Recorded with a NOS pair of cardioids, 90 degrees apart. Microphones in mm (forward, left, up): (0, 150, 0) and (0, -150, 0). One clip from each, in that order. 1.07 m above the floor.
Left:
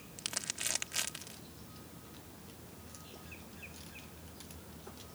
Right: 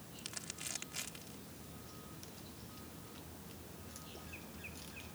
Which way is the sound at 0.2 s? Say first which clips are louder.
Left 8 dB; 55° left.